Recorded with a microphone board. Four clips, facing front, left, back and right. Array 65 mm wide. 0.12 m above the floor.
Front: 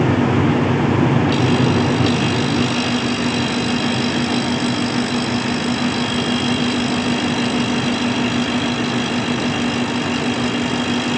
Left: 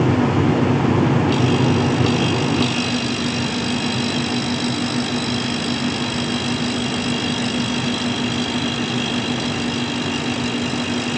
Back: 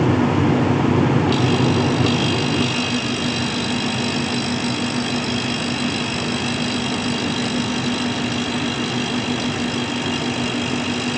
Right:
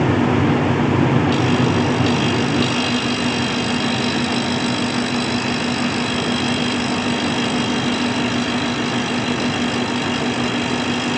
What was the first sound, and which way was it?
Only background noise.